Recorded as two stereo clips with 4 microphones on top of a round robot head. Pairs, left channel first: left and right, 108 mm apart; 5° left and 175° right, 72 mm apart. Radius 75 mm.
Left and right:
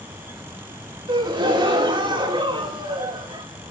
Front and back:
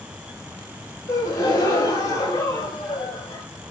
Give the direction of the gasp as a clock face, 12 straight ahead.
2 o'clock.